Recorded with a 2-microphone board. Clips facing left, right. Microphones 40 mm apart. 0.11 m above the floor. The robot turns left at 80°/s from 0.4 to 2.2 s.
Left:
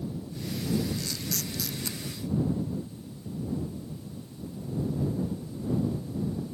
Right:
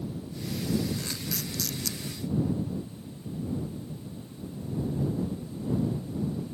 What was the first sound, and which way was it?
A camera shutter, 40° right (ahead or behind).